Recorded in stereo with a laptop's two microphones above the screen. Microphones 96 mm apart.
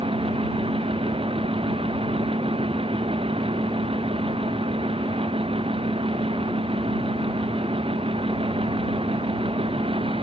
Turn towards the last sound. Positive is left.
turn(degrees=-75)  # may be behind; listen again after turning